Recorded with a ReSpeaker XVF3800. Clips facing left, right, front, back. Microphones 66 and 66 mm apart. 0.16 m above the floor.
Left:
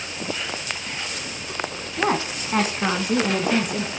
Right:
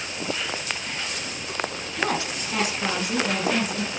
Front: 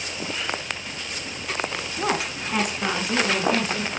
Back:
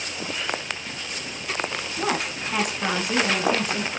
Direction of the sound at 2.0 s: 75° left.